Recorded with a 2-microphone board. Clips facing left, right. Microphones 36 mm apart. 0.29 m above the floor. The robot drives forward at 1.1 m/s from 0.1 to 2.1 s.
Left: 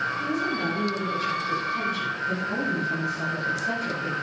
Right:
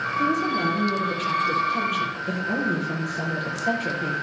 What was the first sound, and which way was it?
A woman speaking, 65° right (ahead or behind).